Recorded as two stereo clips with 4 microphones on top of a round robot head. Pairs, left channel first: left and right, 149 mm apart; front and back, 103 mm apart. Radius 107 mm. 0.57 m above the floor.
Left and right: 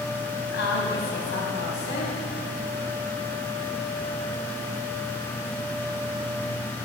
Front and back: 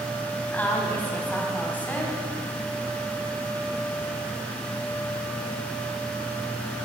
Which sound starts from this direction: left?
A woman speaking, at 0.5 s.